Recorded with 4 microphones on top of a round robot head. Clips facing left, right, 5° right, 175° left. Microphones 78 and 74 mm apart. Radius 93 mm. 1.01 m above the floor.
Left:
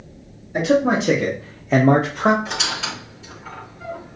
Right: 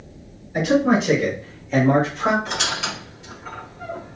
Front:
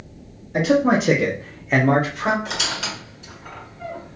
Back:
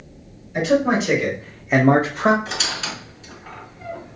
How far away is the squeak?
About 2.5 m.